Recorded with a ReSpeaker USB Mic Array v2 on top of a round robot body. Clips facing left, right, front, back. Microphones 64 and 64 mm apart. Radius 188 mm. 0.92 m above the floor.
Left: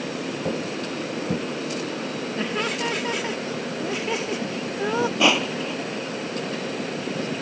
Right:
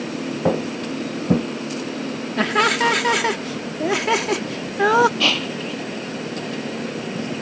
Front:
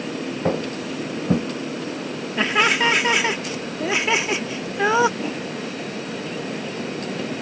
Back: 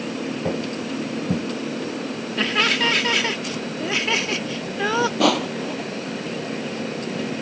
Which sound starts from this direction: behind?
Crushing, at 5.2 s.